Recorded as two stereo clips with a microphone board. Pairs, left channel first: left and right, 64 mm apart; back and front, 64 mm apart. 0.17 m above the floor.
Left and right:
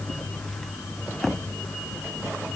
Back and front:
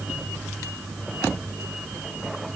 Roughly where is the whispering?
No whispering in this recording.